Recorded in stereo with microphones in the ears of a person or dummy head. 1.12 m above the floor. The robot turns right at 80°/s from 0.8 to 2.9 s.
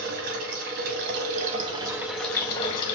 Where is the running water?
110° right, 0.7 m; by 2.9 s 55° left, 0.7 m.